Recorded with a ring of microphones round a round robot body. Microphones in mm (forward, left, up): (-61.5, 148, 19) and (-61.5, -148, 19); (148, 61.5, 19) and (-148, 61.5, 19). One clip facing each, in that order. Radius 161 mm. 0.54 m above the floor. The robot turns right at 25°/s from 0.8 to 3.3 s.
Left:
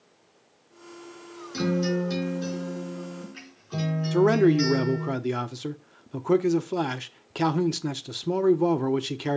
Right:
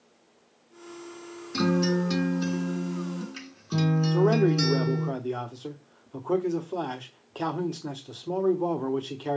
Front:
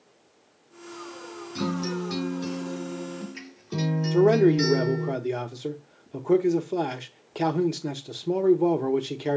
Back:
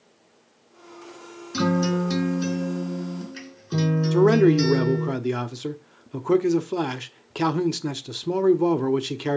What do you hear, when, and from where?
1.5 s a guitar: 155° right, 4 m; by 5.1 s 110° right, 4 m
4.1 s a man speaking: 120° left, 0.9 m